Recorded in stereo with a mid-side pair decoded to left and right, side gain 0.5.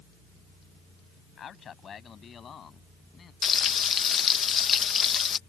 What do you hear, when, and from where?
1.4 s a man speaking: 50° left; by 3.3 s 45° left
3.4 s frying: 45° left